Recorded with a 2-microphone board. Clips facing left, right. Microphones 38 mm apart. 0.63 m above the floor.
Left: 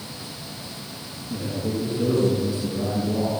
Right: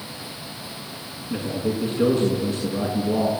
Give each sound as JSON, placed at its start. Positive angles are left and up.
{"t": 1.3, "sound": "a man speaking", "side_deg": -50, "distance_m": 6.5}